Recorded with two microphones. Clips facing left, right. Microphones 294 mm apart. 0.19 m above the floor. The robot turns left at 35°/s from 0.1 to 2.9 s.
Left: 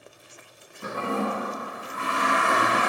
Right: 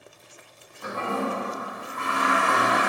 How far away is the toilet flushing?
About 1.5 m.